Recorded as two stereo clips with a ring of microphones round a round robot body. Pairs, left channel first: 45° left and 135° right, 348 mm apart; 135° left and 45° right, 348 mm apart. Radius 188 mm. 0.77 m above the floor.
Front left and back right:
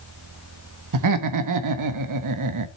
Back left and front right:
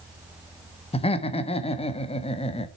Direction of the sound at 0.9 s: 155° right.